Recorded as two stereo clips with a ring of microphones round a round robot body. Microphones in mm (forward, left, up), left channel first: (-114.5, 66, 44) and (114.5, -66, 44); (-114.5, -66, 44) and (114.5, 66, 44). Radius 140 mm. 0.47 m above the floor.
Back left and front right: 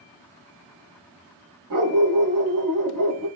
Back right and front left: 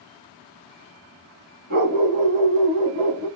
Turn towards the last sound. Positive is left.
turn(degrees=-5)